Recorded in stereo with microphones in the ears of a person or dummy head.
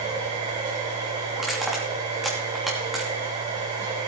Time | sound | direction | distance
0.0 | a machine running | 35° right (ahead or behind) | 5 m
1.4 | crushing | centre (ahead or behind) | 3 m